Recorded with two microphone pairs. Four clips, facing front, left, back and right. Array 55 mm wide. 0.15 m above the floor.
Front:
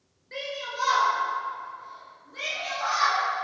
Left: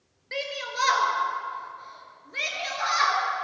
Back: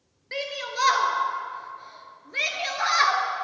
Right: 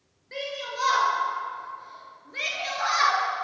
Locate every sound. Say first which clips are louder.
0.3 s a shout: left 2 dB, back 3 dB; 130° left, 3.5 m; by 3.2 s straight behind, 3.5 m